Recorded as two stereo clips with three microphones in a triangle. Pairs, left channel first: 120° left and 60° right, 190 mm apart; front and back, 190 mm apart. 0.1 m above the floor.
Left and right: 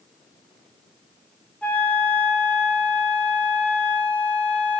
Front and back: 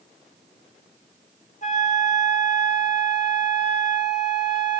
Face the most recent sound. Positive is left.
turn(degrees=40)